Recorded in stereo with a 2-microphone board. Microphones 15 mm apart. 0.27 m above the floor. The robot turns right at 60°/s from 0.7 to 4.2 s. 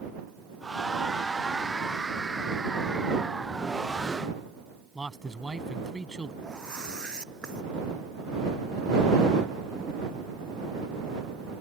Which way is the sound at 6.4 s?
70° left (ahead or behind).